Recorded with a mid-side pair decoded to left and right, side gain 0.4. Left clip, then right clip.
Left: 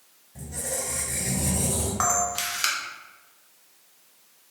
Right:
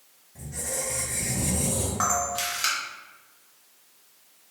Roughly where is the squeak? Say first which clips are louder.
Left 1 dB; ahead left.